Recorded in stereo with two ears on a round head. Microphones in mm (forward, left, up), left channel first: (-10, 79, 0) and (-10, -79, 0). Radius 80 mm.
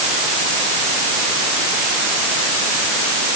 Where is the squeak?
No squeak in this recording.